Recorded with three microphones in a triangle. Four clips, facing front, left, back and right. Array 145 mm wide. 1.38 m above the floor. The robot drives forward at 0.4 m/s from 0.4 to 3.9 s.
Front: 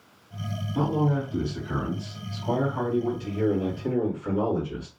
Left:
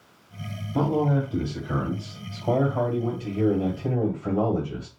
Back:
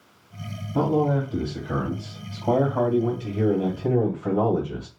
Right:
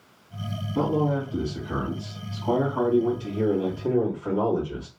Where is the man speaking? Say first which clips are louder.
Left 1 dB, back 4 dB; 135° left, 1.3 m; by 4.9 s 160° left, 2.5 m.